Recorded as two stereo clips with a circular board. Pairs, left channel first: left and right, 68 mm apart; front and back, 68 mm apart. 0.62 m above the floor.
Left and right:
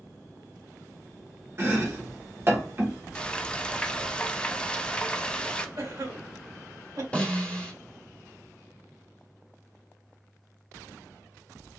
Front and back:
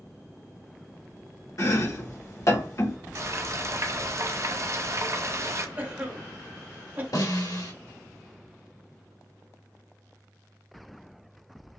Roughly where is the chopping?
Ahead right.